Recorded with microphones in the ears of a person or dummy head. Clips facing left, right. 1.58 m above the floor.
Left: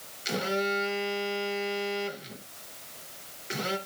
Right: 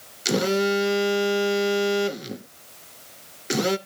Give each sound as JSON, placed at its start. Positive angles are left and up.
{"t": 0.2, "sound": "a phone buzzing", "side_deg": -60, "distance_m": 0.5}